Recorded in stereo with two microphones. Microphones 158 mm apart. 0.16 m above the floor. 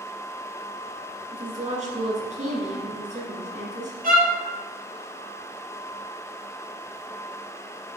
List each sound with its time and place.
1.3 s a woman speaking: 50° right (ahead or behind), 2 m
4.0 s a violin: 65° right (ahead or behind), 1.9 m